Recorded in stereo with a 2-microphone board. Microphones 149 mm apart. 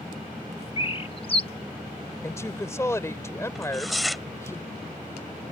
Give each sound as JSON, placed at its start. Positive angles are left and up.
{"t": 0.8, "sound": "a bird", "side_deg": 40}
{"t": 2.2, "sound": "a woman speaking", "side_deg": 20}
{"t": 3.5, "sound": "tearing paper", "side_deg": 0}